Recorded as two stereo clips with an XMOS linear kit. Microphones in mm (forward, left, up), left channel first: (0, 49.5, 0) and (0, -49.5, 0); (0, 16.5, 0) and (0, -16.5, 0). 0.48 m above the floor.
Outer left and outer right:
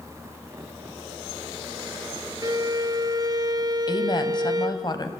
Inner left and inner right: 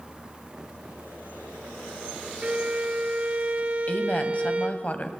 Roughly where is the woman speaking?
Left.